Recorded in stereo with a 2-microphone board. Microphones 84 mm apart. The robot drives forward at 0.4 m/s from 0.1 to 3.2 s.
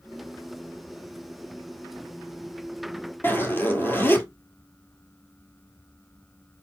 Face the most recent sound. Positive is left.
turn(degrees=25)  # may be behind; listen again after turning